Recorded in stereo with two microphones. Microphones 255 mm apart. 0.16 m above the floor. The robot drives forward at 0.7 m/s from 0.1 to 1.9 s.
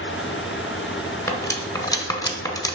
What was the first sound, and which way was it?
Cutlery clinking, 10° left (ahead or behind).